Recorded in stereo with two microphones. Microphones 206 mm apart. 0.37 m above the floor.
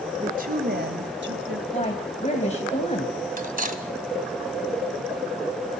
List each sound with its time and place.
0.2 s a woman speaking: 35° right (ahead or behind), 1.7 m; by 1.6 s 70° right (ahead or behind), 3 m
1.7 s a woman speaking: 35° left (ahead or behind), 1.9 m
3.4 s cutlery clinking: 45° right (ahead or behind), 1.7 m